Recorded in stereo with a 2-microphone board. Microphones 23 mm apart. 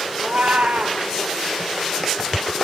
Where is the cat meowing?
90° right, 1.5 m.